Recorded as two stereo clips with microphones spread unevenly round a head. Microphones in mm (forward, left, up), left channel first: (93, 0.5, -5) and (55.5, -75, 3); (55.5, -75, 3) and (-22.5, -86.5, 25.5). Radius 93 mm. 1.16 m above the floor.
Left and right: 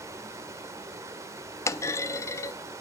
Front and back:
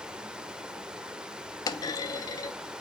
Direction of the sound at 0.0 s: 125° right.